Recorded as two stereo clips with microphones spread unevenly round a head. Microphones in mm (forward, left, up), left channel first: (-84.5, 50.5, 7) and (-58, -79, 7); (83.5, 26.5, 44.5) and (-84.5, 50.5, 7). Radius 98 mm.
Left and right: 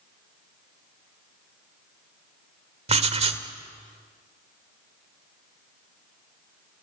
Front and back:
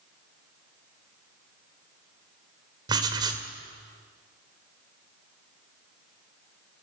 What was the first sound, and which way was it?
Writing, 115° right.